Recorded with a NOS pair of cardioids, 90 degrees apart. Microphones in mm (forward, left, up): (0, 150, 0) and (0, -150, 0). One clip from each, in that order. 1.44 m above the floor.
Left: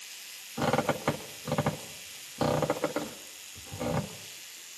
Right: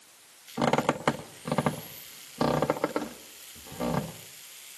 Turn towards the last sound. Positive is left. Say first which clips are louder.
# right 2 dB
turn(degrees=-20)